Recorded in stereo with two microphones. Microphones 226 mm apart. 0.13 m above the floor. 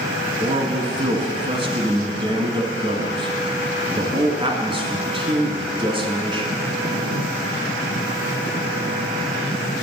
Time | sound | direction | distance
0.4 | a man speaking | 25° right (ahead or behind) | 1.1 m